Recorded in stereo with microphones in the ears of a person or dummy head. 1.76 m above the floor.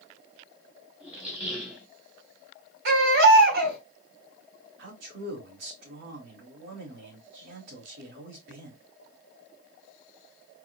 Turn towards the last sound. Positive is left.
turn(degrees=-70)  # may be behind; listen again after turning